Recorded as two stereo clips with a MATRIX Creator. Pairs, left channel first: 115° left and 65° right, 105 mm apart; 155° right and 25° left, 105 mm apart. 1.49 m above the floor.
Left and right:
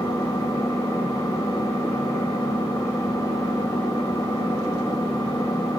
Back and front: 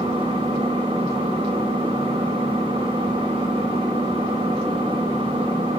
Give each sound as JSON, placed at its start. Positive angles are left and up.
{"t": 0.0, "sound": "an engine running", "azimuth_deg": 55, "distance_m": 6.0}